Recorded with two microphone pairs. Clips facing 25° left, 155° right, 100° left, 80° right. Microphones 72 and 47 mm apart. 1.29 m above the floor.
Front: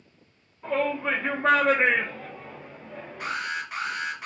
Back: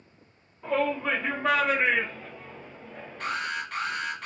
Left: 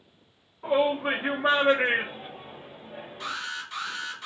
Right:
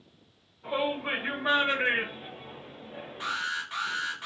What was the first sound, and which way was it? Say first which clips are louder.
A shout: even, left 6 dB; 115° left.